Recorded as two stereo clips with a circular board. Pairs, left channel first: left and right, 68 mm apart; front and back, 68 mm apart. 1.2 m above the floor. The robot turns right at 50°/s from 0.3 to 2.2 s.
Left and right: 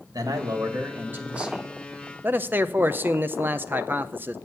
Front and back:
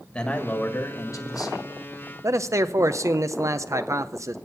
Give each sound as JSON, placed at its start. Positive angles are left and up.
{"t": 0.1, "sound": "a man speaking", "azimuth_deg": -75, "distance_m": 1.5}
{"t": 2.2, "sound": "a man speaking", "azimuth_deg": -145, "distance_m": 0.6}